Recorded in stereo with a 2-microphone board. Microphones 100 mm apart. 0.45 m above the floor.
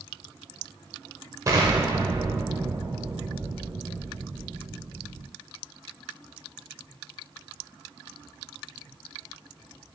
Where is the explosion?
35° right (ahead or behind), 0.7 m.